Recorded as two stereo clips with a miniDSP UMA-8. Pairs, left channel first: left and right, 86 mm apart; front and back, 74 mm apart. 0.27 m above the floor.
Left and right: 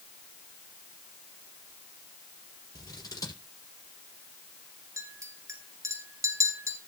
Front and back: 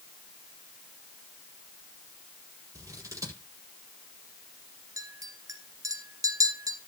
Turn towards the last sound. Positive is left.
turn(degrees=-145)